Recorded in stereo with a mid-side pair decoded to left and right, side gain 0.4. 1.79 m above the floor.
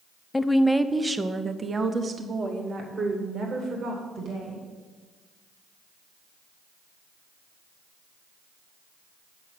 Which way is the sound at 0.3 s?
20° left.